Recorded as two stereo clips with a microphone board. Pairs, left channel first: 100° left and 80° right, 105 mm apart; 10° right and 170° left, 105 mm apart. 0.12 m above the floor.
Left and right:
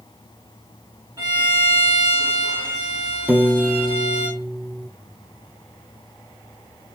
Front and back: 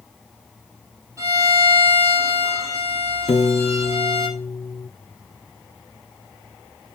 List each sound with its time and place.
1.2 s a violin: 130° right, 6 m
3.3 s a piano: 10° right, 0.7 m